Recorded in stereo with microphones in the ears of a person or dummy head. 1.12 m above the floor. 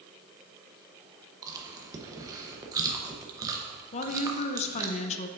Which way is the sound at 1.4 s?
20° right (ahead or behind).